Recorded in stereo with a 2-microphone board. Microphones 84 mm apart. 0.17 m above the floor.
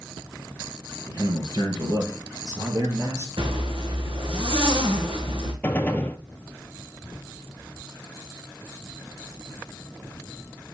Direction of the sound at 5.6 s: 20° left (ahead or behind).